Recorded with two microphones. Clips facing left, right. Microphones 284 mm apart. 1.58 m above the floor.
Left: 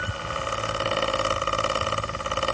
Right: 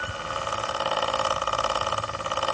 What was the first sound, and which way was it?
Only background noise.